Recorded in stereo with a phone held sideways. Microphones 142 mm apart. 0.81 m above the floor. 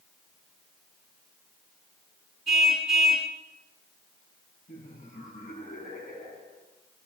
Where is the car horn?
Centre (ahead or behind), 5 m.